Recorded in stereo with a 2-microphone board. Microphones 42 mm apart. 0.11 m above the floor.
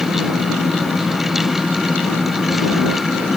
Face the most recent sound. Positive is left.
No sound to turn to.